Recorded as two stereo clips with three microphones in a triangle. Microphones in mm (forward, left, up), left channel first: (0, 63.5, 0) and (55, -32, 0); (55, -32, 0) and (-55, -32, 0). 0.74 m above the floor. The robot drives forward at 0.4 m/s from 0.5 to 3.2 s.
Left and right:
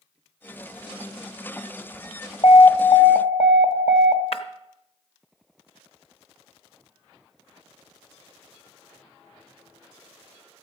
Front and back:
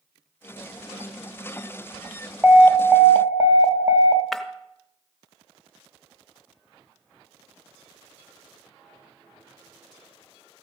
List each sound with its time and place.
2.4 s an alarm: 95° left, 1.0 m; by 4.2 s 115° left, 1.1 m
4.3 s breaking glass: 85° left, 0.6 m